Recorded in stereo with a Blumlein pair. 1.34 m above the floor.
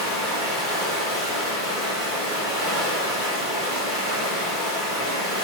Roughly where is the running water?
Ahead.